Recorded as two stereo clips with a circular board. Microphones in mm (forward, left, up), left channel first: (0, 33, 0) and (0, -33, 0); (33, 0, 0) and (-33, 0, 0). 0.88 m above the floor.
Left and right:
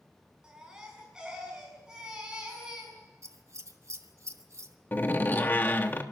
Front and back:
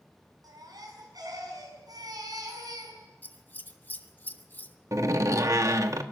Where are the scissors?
60° right, 1.2 m.